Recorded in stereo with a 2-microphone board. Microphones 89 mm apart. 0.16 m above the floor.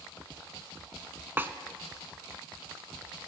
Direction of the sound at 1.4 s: 25° right (ahead or behind).